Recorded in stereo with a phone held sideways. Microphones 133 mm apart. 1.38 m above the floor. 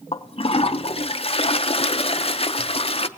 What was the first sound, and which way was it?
A toilet flushing, 45° left (ahead or behind).